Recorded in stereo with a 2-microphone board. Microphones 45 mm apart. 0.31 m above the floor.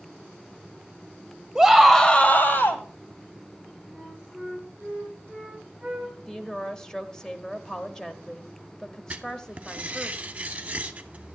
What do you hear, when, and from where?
1.6 s a scream: 10° right (ahead or behind), 1.3 m; by 2.8 s 55° left (ahead or behind), 1.7 m
3.9 s a flute: centre (ahead or behind), 5.5 m
6.3 s a woman speaking: 15° left (ahead or behind), 1.0 m
9.1 s writing: 35° right (ahead or behind), 0.7 m